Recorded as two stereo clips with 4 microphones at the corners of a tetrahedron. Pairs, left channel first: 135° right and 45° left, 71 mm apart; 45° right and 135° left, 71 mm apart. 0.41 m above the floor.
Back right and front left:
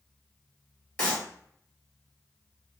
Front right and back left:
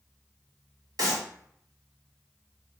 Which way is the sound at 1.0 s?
155° left.